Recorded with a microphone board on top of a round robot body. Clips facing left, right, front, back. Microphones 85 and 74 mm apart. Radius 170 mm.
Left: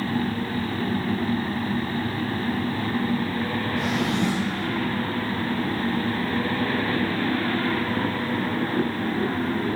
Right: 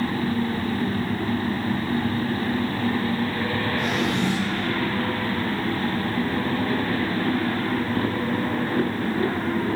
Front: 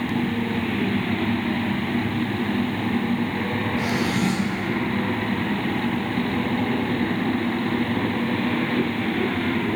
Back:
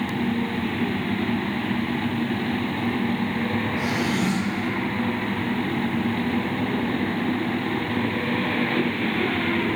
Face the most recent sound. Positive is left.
turn(degrees=105)